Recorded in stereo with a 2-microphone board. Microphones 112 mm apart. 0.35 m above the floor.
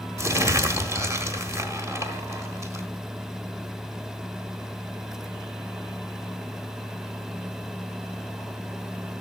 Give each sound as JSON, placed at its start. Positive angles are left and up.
{"t": 0.2, "sound": "crumpling", "side_deg": -25, "distance_m": 1.3}